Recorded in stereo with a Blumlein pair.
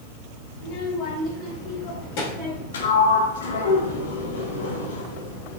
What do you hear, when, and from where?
0.6 s a child speaking: 40° left, 3.5 m; by 2.6 s 55° left, 3 m
2.7 s a sliding door: 65° left, 2.0 m